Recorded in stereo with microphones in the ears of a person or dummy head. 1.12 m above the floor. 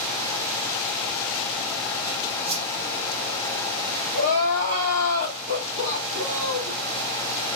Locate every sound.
2.5 s a whoosh: 50° right (ahead or behind), 1.6 m
4.1 s crying: 70° right (ahead or behind), 4 m